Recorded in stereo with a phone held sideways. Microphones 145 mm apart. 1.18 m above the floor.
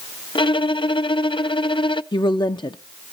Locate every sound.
0.3 s a violin: 35° left (ahead or behind), 0.5 m
2.1 s a woman speaking: 30° left (ahead or behind), 0.6 m